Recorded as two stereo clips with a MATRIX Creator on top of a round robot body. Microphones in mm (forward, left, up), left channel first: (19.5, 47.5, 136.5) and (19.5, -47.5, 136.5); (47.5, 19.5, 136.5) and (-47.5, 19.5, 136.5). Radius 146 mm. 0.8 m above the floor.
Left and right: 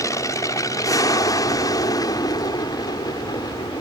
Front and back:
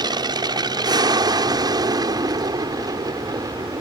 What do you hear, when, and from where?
0.0 s an aircraft: 140° left; by 3.8 s 135° left